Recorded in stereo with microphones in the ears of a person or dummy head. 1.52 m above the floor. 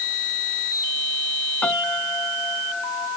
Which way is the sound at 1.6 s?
Centre (ahead or behind).